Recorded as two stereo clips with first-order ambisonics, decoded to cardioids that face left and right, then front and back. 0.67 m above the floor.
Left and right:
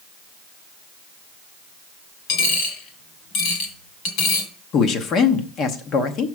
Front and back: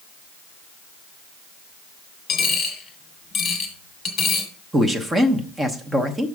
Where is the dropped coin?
65° left, 1.6 m.